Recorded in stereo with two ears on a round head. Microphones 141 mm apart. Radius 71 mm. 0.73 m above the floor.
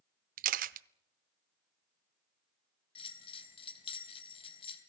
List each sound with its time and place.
0.4 s a camera shutter: 55° right (ahead or behind), 0.5 m
3.0 s a bell: 35° left (ahead or behind), 2.5 m